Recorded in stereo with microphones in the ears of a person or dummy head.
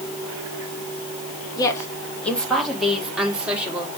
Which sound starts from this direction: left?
A woman speaking, at 1.6 s.